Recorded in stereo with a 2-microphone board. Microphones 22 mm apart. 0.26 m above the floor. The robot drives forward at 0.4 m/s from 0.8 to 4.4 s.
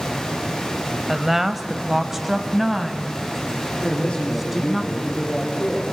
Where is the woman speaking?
10° right (ahead or behind), 0.9 m; by 4.8 s 5° right (ahead or behind), 1.8 m.